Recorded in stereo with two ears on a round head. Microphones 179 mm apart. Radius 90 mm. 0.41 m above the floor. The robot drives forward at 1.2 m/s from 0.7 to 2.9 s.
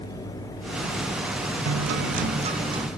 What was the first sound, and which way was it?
A guitar, 80° right.